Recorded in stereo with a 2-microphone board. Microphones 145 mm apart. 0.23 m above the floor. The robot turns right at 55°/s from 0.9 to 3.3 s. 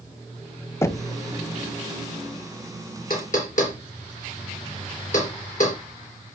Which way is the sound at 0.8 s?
20° left (ahead or behind).